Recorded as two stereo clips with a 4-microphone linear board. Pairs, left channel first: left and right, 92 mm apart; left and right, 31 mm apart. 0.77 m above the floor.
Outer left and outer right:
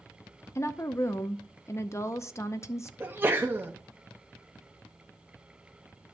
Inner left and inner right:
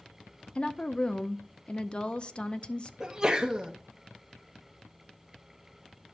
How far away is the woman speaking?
About 0.5 m.